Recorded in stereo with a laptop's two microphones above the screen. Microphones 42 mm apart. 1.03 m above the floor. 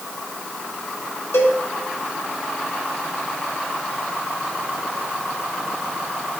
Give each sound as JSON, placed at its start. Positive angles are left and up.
{"t": 1.3, "sound": "a cowbell", "side_deg": 80, "distance_m": 2.5}